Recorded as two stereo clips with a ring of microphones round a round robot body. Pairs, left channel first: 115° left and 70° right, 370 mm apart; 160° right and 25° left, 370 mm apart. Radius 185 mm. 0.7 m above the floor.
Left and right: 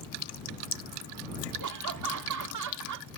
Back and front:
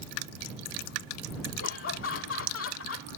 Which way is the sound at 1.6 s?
105° right.